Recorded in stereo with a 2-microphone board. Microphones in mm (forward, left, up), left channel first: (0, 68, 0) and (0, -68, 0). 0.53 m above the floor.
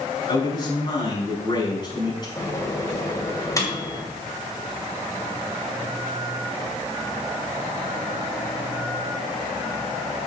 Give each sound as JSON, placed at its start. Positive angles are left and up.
{"t": 0.3, "sound": "a man speaking", "side_deg": 30, "distance_m": 4.5}
{"t": 2.4, "sound": "a microwave", "side_deg": 25, "distance_m": 2.5}